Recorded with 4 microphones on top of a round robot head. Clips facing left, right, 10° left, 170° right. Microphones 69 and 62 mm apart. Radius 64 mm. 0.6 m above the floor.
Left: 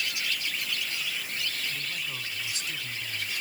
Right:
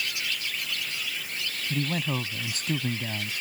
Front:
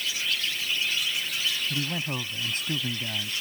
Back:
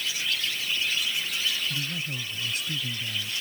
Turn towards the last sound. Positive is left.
turn(degrees=-50)